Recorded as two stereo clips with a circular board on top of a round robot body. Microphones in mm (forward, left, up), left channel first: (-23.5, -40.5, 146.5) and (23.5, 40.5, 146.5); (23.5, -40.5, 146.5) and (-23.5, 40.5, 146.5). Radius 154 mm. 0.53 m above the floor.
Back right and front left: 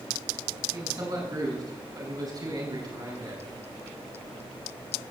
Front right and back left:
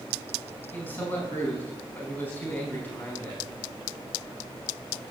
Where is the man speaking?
10° left, 5.5 m.